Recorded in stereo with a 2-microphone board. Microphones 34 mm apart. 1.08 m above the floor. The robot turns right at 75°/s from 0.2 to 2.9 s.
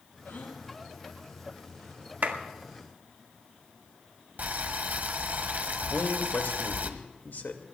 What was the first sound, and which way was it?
A gasp, 80° left.